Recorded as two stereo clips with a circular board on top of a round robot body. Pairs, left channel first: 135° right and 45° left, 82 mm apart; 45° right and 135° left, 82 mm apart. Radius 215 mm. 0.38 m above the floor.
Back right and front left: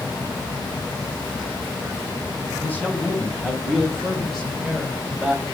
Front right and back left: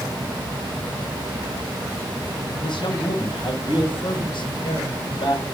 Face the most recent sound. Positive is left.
turn(degrees=-40)